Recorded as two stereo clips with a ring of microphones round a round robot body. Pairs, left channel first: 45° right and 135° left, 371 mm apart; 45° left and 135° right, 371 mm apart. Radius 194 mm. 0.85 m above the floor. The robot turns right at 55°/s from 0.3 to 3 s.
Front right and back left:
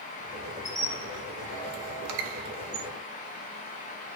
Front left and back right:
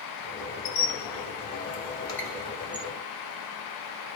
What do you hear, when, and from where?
0.7 s a squeak: 45° left, 0.7 m; by 2.9 s 165° left, 0.7 m